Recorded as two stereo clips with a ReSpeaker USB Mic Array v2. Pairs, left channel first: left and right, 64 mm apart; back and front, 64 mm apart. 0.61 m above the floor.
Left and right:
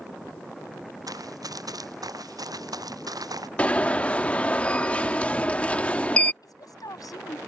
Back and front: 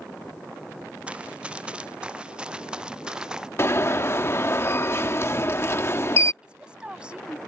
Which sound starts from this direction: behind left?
An alarm, at 3.6 s.